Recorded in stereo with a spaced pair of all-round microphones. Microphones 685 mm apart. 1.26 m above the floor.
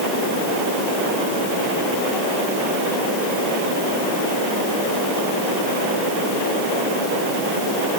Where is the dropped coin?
No dropped coin in this recording.